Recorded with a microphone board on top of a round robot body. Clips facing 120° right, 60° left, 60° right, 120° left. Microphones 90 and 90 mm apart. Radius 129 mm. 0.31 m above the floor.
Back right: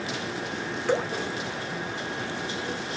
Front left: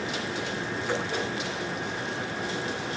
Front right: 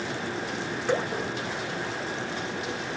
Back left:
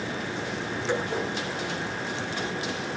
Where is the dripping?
100° right, 1.4 m.